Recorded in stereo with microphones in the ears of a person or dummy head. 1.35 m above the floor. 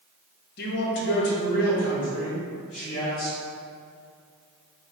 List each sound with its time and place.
0.6 s a man speaking: 50° left (ahead or behind), 0.7 m; by 3.4 s 35° left (ahead or behind), 1.9 m